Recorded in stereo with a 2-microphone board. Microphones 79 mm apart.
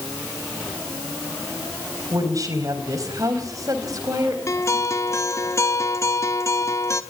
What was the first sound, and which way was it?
A woman speaking, 45° right (ahead or behind).